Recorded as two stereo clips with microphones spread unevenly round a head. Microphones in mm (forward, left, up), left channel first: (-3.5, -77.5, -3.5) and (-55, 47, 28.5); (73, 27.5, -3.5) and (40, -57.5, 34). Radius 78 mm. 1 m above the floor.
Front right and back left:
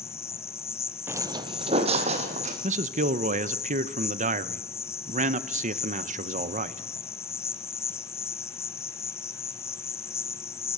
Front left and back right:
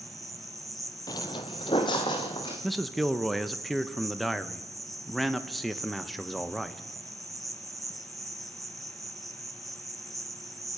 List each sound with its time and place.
0.0 s an insect: 145° right, 0.9 m
1.1 s footsteps: 140° left, 1.1 m
2.6 s a man speaking: 140° left, 1.0 m